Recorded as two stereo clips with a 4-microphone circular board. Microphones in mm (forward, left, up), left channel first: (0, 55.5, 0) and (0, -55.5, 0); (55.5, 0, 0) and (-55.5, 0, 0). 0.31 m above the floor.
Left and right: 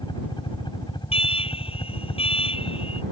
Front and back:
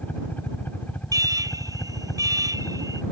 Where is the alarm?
120° left.